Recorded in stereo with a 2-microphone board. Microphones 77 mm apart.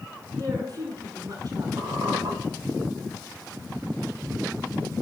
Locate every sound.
0.4 s a woman speaking: 55° right (ahead or behind), 9.5 m
1.8 s a squeak: 65° right (ahead or behind), 3.5 m